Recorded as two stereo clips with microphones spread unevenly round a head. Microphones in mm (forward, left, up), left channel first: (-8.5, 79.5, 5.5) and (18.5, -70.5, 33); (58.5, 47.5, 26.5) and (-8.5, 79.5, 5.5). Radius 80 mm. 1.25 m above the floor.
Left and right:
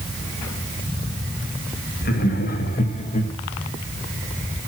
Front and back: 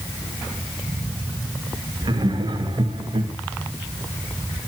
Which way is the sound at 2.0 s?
130° left.